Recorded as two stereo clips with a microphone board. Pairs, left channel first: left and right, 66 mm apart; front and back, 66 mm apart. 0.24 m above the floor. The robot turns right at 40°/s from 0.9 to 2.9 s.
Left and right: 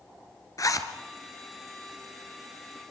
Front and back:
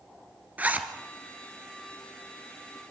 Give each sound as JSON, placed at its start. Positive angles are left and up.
{"t": 0.6, "sound": "a zipper", "azimuth_deg": 115, "distance_m": 2.0}